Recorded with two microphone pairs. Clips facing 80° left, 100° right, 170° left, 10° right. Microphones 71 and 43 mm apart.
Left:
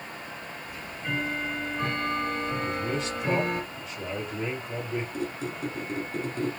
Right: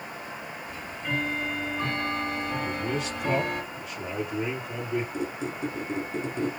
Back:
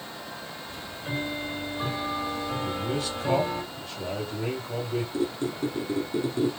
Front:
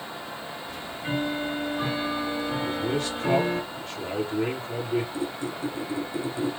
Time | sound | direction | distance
0.7 | ticking | straight ahead | 2.5 m
2.6 | a man speaking | 15° right | 2.5 m
5.1 | a squeak | 170° right | 1.2 m